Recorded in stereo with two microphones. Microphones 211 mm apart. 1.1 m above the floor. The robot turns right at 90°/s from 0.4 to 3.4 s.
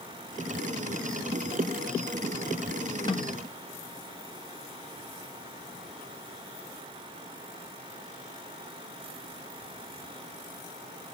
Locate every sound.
3.1 s a snare drum: 20° left (ahead or behind), 0.7 m; by 3.4 s 45° left (ahead or behind), 0.7 m